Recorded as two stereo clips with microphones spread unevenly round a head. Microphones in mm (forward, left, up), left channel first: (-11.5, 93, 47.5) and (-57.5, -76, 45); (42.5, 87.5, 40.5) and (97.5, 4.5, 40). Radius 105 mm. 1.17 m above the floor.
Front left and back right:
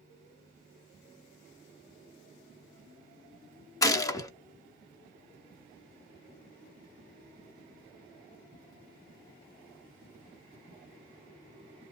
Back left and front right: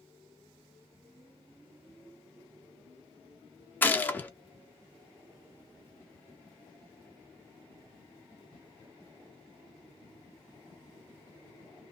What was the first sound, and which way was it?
A gunshot, 100° left.